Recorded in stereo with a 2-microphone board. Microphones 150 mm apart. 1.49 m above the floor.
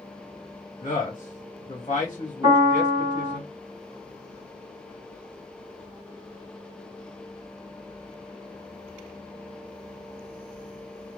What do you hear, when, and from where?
0.8 s a man speaking: 45° left (ahead or behind), 1.1 m
2.4 s a piano: 20° right (ahead or behind), 1.9 m